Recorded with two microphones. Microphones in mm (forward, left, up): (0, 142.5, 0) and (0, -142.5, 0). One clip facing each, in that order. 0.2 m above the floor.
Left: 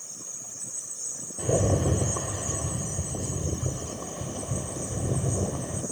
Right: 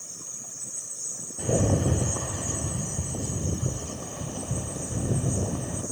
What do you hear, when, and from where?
0.0 s an insect: 70° right (ahead or behind), 4.5 m
1.4 s a rattle: 5° right (ahead or behind), 1.0 m